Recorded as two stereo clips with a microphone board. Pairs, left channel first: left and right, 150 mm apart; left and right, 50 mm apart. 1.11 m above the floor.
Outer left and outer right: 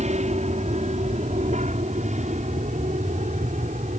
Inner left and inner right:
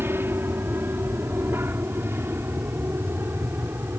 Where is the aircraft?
50° right (ahead or behind); by 4.0 s 55° right (ahead or behind).